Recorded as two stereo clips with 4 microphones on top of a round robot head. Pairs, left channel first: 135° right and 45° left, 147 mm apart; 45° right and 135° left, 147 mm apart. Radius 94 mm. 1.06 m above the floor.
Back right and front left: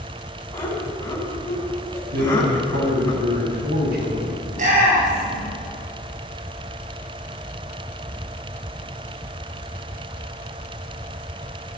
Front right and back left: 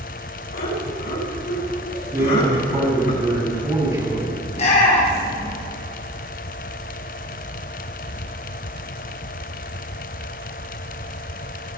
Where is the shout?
5° left, 6.5 m.